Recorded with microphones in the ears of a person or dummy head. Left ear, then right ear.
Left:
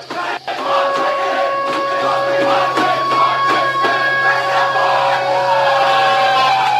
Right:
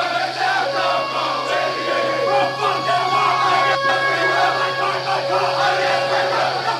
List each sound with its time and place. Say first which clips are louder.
0.6 s a flute: left 4 dB; 5° left (ahead or behind), 1.8 m